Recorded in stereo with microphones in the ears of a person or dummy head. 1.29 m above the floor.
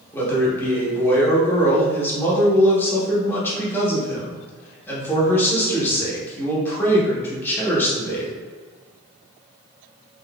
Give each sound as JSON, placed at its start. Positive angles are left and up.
{"t": 0.1, "sound": "a man speaking", "side_deg": 10, "distance_m": 1.1}